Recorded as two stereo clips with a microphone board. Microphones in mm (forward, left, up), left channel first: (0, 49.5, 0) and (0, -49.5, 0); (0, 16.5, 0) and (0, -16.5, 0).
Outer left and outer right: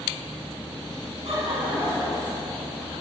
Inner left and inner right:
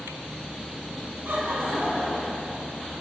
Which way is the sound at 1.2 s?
65° right (ahead or behind).